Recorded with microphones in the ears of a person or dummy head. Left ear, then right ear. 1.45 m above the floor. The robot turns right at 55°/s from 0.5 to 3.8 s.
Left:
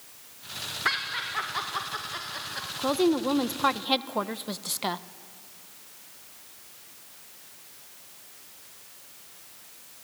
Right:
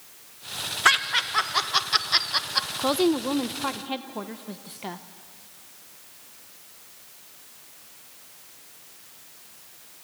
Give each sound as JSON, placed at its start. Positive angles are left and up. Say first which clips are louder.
{"t": 0.8, "sound": "laughter", "louder": "right 8 dB", "side_deg": -45, "distance_m": 1.8}
{"t": 2.8, "sound": "a woman speaking", "louder": "left 1 dB", "side_deg": -15, "distance_m": 0.8}